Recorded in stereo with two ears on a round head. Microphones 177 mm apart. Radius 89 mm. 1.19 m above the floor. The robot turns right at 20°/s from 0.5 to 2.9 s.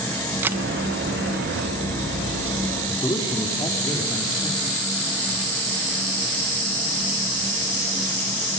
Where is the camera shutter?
10° right (ahead or behind), 0.6 m.